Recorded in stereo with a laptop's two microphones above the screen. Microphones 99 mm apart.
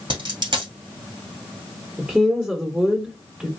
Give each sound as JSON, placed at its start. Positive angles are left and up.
{"t": 0.1, "sound": "a dropped coin", "side_deg": -45, "distance_m": 1.6}
{"t": 2.0, "sound": "a woman speaking", "side_deg": -10, "distance_m": 1.1}